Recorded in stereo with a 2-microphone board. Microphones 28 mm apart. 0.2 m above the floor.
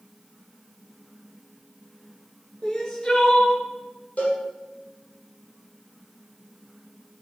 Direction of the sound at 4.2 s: 70° left (ahead or behind).